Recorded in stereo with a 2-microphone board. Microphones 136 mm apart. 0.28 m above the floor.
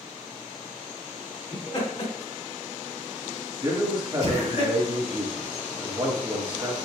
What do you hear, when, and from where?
1.5 s laughter: 50° left (ahead or behind), 1.8 m; by 4.6 s 75° left (ahead or behind), 4 m
3.6 s a man speaking: 35° right (ahead or behind), 1.2 m